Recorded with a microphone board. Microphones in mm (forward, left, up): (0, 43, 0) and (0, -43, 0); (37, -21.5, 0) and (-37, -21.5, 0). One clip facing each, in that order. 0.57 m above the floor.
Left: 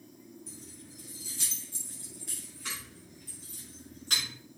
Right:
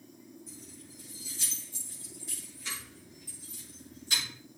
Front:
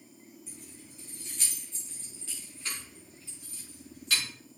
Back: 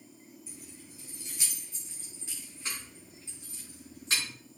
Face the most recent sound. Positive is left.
turn(degrees=120)